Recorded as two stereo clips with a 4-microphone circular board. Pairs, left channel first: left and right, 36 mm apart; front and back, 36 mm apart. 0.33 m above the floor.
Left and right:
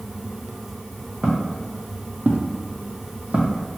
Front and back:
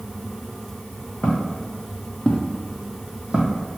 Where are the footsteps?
20° right, 1.0 m; by 3.8 s 145° right, 0.9 m.